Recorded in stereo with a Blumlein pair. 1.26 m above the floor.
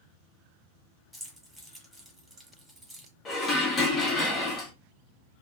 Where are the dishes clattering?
25° left, 0.9 m.